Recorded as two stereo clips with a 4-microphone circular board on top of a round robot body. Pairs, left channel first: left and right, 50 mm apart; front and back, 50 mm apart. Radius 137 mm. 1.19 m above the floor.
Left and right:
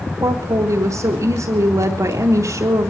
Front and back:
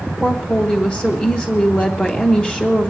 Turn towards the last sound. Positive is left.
turn(degrees=-70)